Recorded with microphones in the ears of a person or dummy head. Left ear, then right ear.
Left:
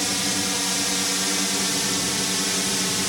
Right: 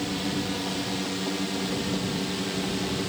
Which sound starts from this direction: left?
A drone, at 0.0 s.